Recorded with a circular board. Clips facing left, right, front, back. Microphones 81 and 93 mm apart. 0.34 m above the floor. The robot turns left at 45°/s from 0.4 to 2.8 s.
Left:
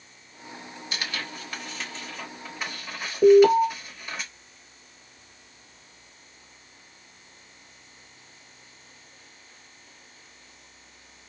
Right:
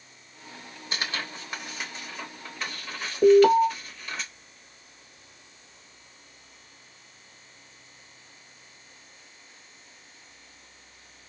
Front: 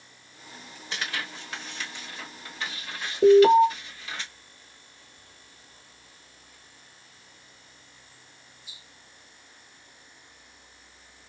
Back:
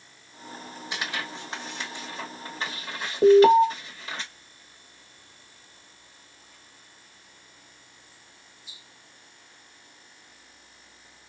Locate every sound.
0.9 s tearing paper: 115° right, 1.0 m; by 4.2 s 160° left, 1.0 m
3.2 s an alarm: straight behind, 0.9 m